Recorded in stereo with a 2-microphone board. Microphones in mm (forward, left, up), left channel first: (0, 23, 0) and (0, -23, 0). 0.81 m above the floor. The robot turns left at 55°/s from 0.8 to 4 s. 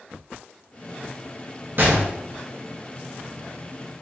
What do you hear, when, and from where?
1.8 s a gunshot: 50° right (ahead or behind), 1.2 m; by 2.1 s 45° right (ahead or behind), 1.2 m